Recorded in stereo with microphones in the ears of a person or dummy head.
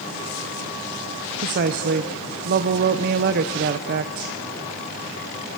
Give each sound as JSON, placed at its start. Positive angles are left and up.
{"t": 1.4, "sound": "a woman speaking", "side_deg": -40, "distance_m": 0.9}